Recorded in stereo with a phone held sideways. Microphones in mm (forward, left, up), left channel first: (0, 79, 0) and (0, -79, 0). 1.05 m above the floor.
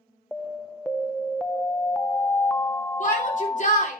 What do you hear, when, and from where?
0.3 s an alarm: 5° left (ahead or behind), 0.5 m
3.0 s a shout: 50° left (ahead or behind), 3 m